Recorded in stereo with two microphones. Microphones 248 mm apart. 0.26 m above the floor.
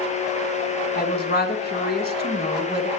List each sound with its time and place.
0.9 s a woman speaking: 40° left (ahead or behind), 3 m